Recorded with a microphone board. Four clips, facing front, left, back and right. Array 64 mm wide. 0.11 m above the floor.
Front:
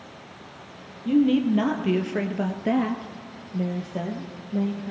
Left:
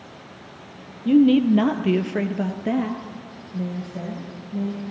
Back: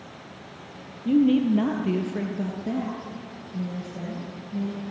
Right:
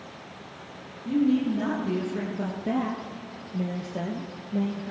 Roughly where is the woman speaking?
Left.